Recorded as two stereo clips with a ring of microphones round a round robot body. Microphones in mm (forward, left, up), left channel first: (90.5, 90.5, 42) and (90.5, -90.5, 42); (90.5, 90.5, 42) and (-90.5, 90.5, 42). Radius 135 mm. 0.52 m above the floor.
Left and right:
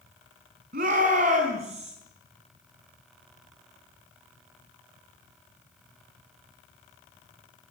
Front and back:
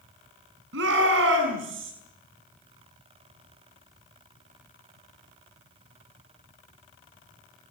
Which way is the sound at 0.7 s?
145° right.